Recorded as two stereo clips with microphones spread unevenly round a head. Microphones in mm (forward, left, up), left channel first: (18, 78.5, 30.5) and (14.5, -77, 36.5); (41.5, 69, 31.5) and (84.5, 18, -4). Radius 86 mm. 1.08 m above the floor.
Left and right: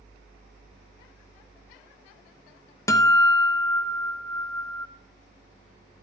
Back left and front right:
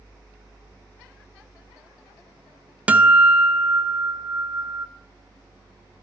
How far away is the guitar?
About 0.7 m.